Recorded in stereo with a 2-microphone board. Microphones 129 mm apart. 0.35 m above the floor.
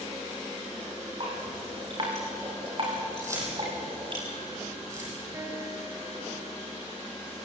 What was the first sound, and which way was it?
Dripping, 40° right (ahead or behind).